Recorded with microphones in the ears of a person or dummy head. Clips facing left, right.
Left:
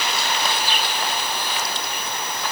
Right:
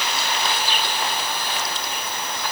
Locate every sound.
Only background noise.